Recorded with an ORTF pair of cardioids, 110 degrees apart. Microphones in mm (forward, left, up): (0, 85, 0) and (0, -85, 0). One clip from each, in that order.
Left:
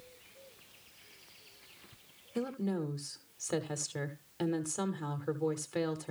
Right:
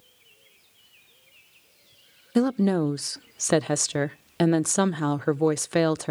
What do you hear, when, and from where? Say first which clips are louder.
2.4 s a woman speaking: right 13 dB; 65° right, 0.6 m